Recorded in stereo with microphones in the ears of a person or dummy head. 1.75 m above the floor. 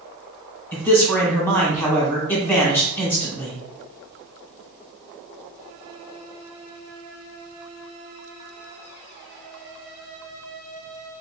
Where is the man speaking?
10° left (ahead or behind), 1.5 m.